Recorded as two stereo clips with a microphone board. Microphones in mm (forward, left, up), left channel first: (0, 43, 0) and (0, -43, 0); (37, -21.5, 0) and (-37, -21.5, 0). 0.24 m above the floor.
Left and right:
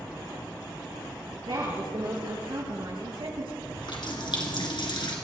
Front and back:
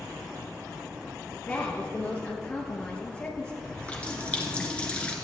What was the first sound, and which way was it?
A woman speaking, 70° right.